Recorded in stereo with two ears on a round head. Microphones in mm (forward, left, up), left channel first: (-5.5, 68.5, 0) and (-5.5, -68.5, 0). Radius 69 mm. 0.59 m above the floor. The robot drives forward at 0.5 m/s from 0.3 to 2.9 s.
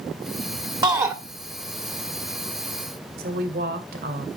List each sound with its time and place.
0.8 s a shout: 25° right (ahead or behind), 1.3 m; by 1.1 s 20° right (ahead or behind), 1.4 m
3.2 s a woman speaking: 65° right (ahead or behind), 2.5 m